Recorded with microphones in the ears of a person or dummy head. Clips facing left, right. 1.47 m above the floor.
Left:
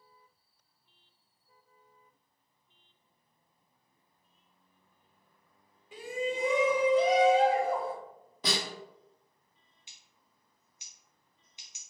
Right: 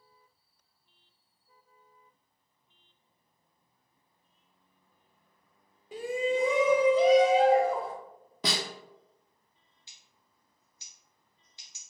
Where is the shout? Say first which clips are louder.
Right 5 dB; 35° right (ahead or behind), 0.5 m; by 7.9 s 55° right (ahead or behind), 1.2 m.